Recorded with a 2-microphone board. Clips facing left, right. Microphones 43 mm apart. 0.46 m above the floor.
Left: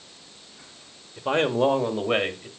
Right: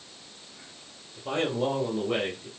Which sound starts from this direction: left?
A man speaking, at 1.2 s.